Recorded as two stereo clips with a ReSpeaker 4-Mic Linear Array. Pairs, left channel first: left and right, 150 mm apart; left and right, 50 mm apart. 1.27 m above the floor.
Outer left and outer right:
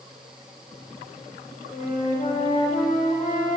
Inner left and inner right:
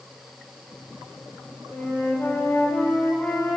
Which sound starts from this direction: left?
A flute, at 1.7 s.